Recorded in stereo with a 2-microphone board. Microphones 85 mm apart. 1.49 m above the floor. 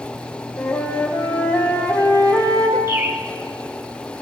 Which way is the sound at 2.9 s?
30° right (ahead or behind).